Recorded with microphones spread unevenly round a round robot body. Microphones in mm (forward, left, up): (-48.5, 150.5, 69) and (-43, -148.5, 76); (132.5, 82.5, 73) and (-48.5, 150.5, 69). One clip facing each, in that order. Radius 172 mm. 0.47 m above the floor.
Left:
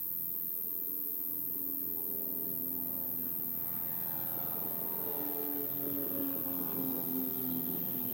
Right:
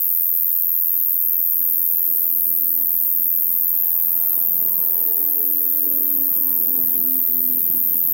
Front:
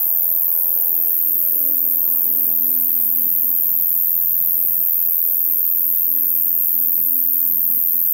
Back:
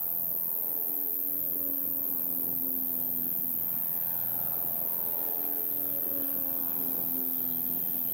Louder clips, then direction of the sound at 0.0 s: Right 1 dB, front 4 dB; 30° right.